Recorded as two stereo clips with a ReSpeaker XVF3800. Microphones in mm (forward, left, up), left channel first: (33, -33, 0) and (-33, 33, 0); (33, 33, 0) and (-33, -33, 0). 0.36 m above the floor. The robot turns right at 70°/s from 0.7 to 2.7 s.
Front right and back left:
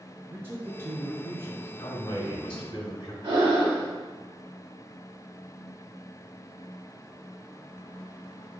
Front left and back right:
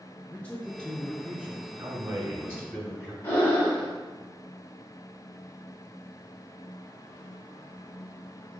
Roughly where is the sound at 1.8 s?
Right.